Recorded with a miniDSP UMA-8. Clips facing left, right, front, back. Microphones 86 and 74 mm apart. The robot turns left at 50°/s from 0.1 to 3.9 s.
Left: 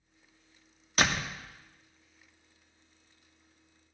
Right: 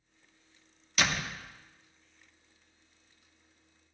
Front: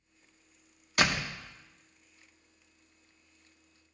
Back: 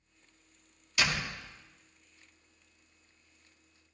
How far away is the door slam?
About 0.7 m.